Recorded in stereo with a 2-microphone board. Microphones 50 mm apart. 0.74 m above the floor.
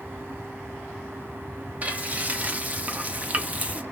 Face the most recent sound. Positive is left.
turn(degrees=-30)  # may be behind; listen again after turning